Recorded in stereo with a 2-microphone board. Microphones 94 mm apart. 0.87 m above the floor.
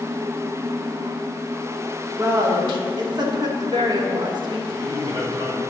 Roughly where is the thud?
I don't hear a thud.